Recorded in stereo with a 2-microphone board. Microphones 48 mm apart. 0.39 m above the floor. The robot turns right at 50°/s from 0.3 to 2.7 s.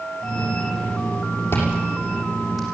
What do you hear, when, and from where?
1.5 s chewing: 50° left (ahead or behind), 7 m; by 2.7 s 5° right (ahead or behind), 7 m